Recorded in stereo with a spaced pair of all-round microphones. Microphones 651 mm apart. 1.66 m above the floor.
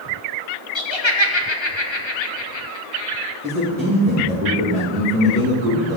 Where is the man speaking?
15° right (ahead or behind), 3 m.